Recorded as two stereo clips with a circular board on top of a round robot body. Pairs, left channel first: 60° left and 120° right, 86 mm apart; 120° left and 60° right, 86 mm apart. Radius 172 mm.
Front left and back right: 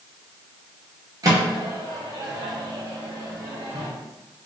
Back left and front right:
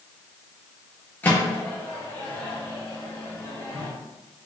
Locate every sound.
1.2 s a microwave: 170° right, 0.6 m